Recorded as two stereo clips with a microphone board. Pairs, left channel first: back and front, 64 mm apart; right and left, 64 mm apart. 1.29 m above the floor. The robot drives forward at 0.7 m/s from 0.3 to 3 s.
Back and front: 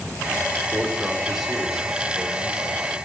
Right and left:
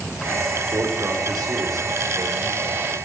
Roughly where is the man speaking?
Ahead left.